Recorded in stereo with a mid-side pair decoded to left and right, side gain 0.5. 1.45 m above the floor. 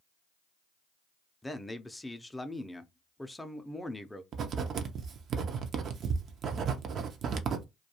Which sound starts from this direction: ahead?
A man speaking, at 1.4 s.